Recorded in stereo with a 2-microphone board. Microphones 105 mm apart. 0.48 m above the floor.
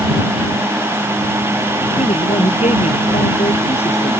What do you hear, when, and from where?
2.0 s a man speaking: 85° left